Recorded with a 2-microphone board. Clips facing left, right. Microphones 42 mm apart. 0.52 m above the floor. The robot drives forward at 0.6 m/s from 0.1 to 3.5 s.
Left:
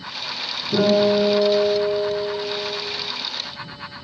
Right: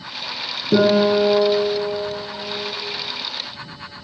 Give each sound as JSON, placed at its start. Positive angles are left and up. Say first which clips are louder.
{"t": 0.7, "sound": "a guitar", "louder": "right 2 dB", "side_deg": -85, "distance_m": 2.5}